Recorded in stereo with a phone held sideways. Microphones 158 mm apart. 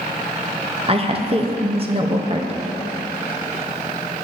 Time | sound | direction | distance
0.9 | a woman speaking | 35° right (ahead or behind) | 0.7 m